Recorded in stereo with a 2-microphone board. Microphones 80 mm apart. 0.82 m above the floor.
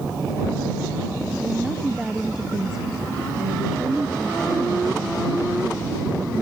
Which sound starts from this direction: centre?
A woman speaking, at 1.4 s.